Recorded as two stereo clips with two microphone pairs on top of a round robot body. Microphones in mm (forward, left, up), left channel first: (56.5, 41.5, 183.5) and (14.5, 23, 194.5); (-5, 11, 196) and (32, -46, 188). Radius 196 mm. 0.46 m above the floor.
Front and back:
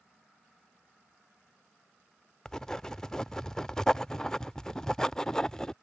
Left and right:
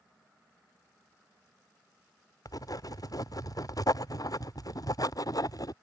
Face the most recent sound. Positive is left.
turn(degrees=90)